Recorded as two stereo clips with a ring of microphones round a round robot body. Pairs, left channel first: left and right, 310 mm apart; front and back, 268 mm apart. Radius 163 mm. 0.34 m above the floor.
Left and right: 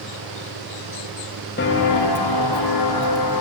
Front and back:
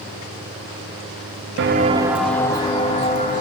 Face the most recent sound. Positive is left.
turn(degrees=60)